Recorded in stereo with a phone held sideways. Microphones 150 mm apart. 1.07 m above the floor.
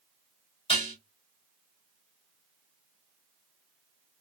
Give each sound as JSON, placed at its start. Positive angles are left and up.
{"t": 0.7, "sound": "dishes clattering", "side_deg": 35, "distance_m": 2.0}